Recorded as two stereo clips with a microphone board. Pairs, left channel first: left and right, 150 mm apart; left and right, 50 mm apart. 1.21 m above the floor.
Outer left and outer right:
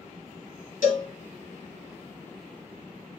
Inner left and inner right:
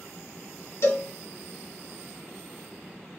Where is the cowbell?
60° left (ahead or behind), 1.8 m.